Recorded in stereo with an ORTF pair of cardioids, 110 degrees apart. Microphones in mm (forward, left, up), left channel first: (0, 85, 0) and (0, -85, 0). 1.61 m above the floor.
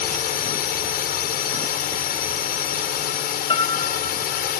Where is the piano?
30° left.